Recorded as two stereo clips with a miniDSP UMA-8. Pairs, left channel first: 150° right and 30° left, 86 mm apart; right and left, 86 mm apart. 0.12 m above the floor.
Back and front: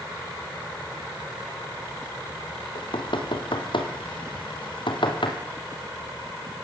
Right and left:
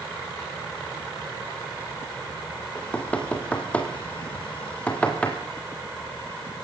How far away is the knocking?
About 3 m.